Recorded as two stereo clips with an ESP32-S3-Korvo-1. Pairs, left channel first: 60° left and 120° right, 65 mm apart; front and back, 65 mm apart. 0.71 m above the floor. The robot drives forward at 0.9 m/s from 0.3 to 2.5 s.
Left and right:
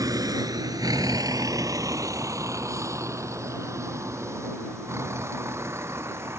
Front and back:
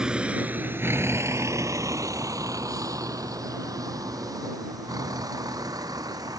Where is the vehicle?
105° right; by 6.4 s 165° right.